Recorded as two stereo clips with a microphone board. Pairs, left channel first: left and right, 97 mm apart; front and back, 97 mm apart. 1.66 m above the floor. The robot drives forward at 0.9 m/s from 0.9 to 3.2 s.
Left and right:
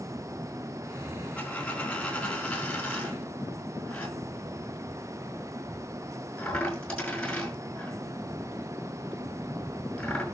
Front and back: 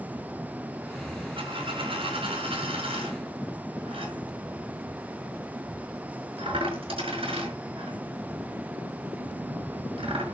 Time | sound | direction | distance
1.4 | a dropped coin | 165° left | 4 m